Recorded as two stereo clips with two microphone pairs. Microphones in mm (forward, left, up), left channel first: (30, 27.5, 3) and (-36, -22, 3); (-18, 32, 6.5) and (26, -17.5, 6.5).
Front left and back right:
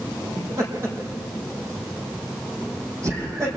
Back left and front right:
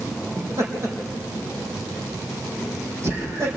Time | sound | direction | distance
0.4 | laughter | 95° right | 5 m